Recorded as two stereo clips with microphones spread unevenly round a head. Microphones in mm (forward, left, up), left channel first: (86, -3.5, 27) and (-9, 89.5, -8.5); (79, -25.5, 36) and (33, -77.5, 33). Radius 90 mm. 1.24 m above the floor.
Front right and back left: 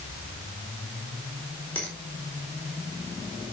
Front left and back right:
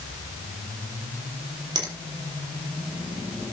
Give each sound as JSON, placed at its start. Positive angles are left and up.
{"t": 1.8, "sound": "a finger snap", "azimuth_deg": -130, "distance_m": 3.5}